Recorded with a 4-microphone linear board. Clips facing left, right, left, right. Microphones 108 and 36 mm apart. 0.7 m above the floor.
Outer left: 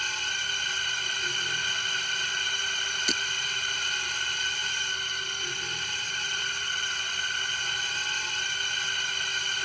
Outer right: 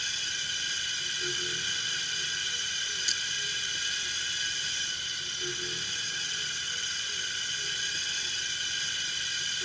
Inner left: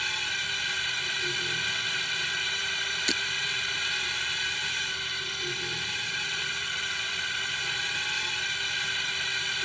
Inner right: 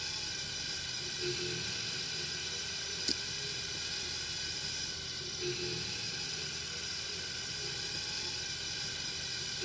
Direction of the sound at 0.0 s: 50° left (ahead or behind).